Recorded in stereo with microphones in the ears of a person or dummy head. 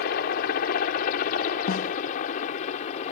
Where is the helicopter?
55° left (ahead or behind); by 3.1 s 40° left (ahead or behind).